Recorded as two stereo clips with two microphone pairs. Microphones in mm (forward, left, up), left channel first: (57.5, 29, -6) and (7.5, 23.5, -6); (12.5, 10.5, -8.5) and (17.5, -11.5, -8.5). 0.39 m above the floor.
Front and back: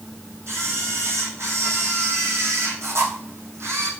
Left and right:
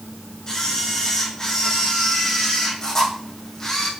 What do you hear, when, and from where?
0.5 s a camera shutter: 165° left, 4.5 m